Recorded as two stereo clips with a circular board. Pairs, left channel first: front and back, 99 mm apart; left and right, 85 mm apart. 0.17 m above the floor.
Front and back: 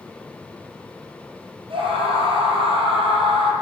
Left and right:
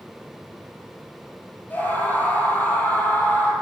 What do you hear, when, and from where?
1.7 s a scream: 160° left, 6 m